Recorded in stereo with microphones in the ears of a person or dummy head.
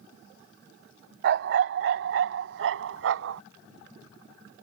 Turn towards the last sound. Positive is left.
turn(degrees=-70)  # may be behind; listen again after turning